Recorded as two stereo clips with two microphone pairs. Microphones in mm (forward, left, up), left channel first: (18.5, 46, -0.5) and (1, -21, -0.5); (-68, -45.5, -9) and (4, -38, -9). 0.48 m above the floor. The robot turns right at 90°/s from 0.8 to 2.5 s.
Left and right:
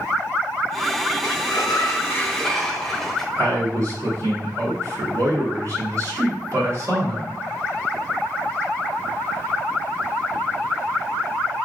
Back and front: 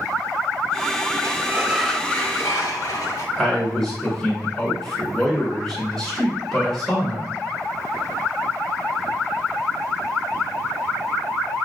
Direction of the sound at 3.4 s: 105° right.